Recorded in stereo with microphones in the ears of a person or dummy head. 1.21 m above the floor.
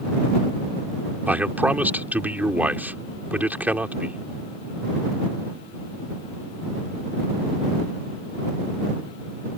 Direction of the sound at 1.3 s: 10° right (ahead or behind).